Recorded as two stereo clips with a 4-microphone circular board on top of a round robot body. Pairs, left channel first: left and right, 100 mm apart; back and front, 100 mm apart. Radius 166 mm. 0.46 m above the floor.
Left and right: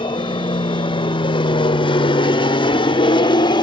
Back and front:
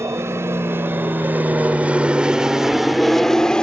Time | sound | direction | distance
0.0 | an aircraft | 60° left | ?